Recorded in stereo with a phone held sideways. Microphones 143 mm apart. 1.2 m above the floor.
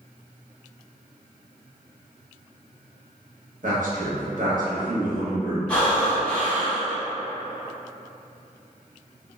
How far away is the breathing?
About 0.9 m.